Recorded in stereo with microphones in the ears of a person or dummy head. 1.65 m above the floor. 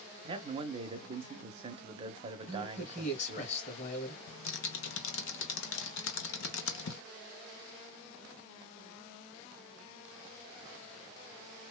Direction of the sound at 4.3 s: 80° left.